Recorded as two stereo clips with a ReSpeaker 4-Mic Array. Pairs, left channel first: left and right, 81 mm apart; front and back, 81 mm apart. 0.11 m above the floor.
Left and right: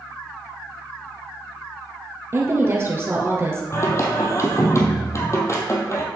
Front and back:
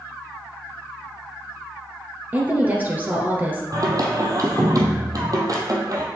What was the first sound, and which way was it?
A woman speaking, 125° right.